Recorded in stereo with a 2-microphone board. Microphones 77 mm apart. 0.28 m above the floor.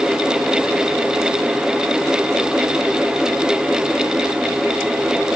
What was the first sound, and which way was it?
Only background noise.